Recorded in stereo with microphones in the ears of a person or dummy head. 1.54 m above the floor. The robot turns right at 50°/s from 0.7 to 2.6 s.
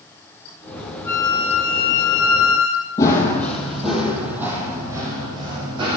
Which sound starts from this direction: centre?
Running footsteps, at 3.0 s.